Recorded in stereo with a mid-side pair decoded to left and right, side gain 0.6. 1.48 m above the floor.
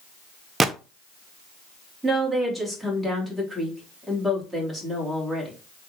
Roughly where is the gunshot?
Ahead.